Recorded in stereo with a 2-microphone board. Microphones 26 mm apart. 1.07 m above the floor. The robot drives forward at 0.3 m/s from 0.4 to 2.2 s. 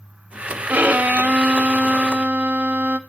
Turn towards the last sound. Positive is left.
turn(degrees=-80)